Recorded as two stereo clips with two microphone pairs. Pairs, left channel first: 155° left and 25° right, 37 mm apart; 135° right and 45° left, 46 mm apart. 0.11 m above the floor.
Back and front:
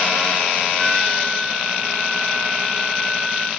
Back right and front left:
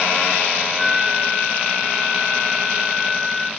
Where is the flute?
75° left, 3 m.